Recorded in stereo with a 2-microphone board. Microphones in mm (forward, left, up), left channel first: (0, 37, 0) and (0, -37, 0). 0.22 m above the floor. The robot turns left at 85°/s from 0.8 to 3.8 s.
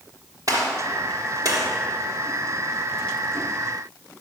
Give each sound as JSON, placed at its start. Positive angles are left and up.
{"t": 0.5, "sound": "a gunshot", "side_deg": -55, "distance_m": 3.0}